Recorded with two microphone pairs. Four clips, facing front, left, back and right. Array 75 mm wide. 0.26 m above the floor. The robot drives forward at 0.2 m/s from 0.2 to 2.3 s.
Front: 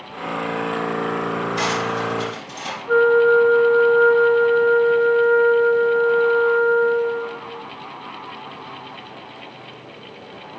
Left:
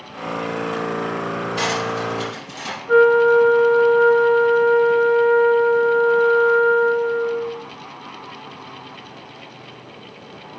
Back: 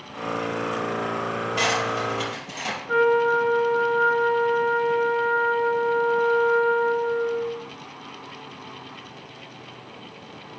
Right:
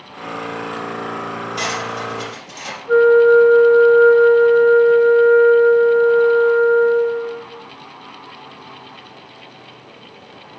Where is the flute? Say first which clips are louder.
Right 3 dB, front 6 dB; 110° left, 2 m.